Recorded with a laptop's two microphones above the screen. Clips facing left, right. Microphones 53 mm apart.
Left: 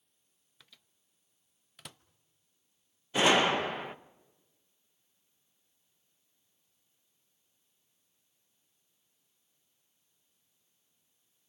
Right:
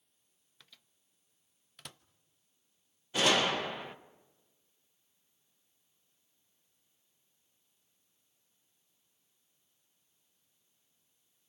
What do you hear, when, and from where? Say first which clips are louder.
0.6 s a microwave: even; centre (ahead or behind), 0.7 m
3.1 s a gunshot: left 3 dB; 20° left (ahead or behind), 1.0 m